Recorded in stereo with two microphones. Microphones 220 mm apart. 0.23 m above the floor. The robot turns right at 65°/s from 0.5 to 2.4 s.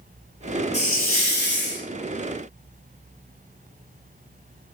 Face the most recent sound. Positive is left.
turn(degrees=145)